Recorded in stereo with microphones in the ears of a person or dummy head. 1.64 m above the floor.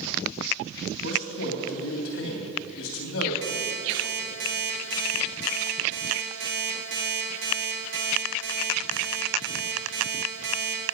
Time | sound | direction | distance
1.0 | a man speaking | 70° left (ahead or behind) | 3 m
3.4 | an alarm clock | 65° right (ahead or behind) | 2.5 m